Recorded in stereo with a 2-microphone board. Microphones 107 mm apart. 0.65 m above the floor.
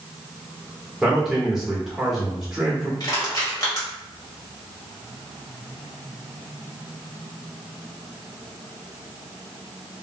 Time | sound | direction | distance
1.0 | a man speaking | 5° right (ahead or behind) | 1.4 m
3.0 | crushing | 40° left (ahead or behind) | 1.8 m